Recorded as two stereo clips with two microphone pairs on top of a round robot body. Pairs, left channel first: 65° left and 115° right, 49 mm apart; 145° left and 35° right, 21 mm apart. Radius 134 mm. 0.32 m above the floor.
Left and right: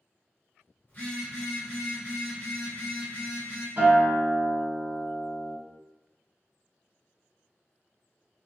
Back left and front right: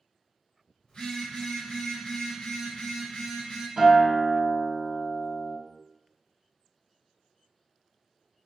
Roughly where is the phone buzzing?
Behind left.